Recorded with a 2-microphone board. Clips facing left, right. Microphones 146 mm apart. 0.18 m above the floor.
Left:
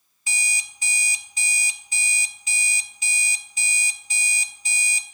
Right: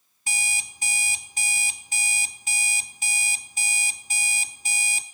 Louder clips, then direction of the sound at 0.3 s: Left 1 dB; 50° right (ahead or behind).